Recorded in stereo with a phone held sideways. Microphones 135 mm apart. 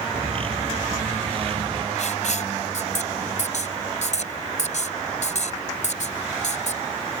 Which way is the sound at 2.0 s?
65° left (ahead or behind).